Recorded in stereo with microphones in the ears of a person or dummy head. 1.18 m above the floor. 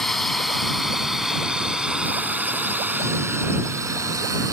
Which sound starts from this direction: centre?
A drone, at 0.0 s.